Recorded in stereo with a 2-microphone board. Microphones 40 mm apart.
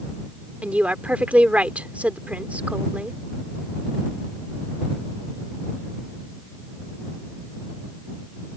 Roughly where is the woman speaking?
Right.